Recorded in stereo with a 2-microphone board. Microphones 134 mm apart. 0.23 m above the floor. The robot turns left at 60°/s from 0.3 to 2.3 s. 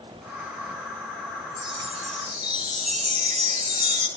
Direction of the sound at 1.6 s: 35° right.